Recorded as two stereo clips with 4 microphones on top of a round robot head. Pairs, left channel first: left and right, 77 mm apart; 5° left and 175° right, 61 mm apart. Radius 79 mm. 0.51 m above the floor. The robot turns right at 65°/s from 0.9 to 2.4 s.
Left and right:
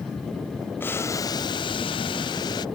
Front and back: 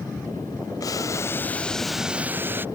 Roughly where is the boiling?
Ahead left.